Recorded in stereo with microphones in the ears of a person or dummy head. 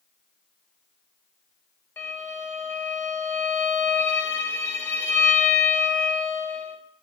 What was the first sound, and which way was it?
A violin, 10° left (ahead or behind).